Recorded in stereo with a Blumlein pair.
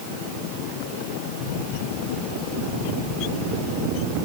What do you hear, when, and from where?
Only background noise.